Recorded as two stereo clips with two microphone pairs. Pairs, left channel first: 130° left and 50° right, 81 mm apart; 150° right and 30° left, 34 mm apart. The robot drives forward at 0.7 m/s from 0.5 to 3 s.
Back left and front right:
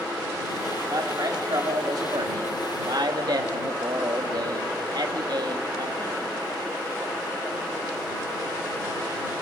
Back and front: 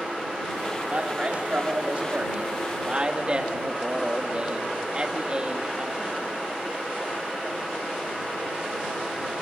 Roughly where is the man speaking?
Ahead.